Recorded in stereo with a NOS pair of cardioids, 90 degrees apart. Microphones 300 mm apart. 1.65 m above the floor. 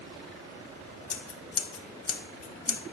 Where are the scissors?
50° left, 1.7 m.